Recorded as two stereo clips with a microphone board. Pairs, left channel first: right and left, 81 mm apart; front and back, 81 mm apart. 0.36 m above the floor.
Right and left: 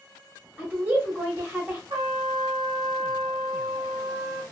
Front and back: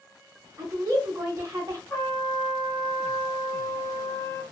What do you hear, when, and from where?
0.6 s a woman speaking: 150° left, 1.2 m
1.9 s a trumpet: 65° left, 1.5 m